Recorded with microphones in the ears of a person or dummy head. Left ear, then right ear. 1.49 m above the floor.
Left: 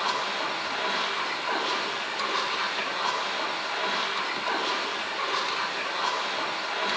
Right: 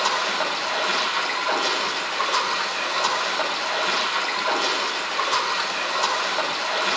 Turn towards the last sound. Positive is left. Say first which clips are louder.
# right 5 dB
turn(degrees=-85)